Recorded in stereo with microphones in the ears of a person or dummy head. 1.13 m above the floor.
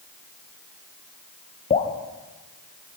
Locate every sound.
1.7 s dripping: 35° left (ahead or behind), 4 m